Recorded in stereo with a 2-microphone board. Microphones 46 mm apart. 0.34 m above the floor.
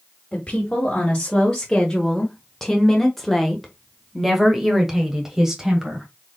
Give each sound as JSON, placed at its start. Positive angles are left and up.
{"t": 0.3, "sound": "a woman speaking", "side_deg": 20, "distance_m": 1.8}